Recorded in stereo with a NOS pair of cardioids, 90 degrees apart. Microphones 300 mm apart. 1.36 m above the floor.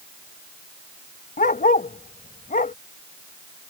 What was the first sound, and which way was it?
A dog barking, 25° left.